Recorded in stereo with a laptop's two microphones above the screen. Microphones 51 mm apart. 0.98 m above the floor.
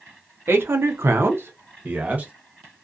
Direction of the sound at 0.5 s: 50° right (ahead or behind).